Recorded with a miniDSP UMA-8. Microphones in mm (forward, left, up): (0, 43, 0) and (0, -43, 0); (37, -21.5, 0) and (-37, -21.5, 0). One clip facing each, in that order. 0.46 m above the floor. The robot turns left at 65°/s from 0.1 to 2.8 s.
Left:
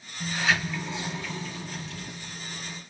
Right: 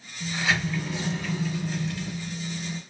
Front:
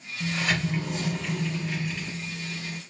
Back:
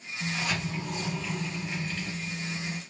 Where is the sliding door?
35° left, 3 m; by 2.8 s 135° right, 3 m.